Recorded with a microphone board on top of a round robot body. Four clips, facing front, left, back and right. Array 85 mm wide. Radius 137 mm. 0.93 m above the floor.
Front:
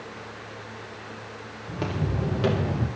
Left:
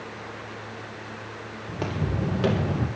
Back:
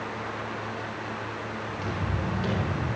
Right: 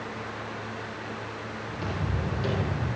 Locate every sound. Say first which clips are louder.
1.7 s footsteps: left 4 dB, front 6 dB; 50° left, 3 m; by 2.9 s 60° left, 2.5 m